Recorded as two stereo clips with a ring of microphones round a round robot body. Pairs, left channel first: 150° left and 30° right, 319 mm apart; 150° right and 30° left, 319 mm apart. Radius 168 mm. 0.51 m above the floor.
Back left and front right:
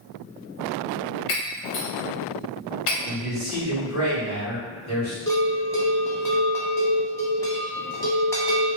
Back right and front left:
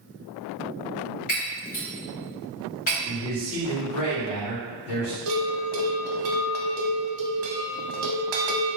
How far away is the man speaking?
About 1.7 m.